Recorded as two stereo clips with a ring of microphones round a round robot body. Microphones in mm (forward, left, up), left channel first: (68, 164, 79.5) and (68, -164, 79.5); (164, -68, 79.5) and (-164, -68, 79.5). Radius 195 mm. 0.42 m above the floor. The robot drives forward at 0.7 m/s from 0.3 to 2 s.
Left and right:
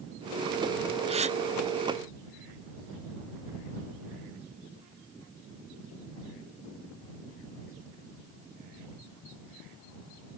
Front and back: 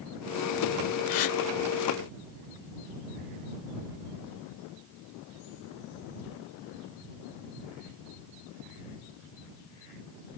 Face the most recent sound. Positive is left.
turn(degrees=-40)